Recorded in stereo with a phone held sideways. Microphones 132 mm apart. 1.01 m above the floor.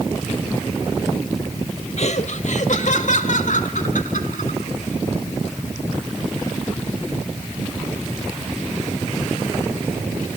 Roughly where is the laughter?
Left.